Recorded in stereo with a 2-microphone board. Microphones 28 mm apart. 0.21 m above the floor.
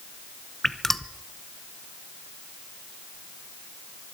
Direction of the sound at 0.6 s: 10° left (ahead or behind).